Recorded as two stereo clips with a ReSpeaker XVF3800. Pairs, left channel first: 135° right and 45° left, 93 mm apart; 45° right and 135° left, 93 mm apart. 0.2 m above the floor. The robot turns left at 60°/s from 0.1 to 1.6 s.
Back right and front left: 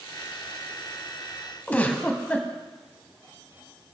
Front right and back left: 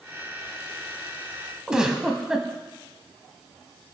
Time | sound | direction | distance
1.7 | a giggle | 160° right | 1.3 m